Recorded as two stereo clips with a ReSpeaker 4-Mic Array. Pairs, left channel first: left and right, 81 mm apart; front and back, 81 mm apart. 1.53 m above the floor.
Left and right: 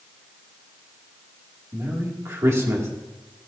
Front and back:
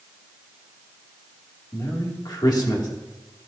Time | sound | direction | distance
1.7 | a man speaking | 35° right | 2 m